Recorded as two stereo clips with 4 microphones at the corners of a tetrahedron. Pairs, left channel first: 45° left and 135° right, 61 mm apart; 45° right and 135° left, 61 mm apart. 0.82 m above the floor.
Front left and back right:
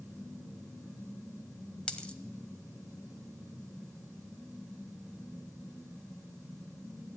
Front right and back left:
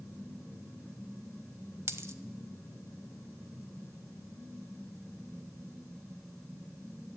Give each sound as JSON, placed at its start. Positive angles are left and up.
{"t": 1.9, "sound": "a dropped coin", "azimuth_deg": 115, "distance_m": 0.9}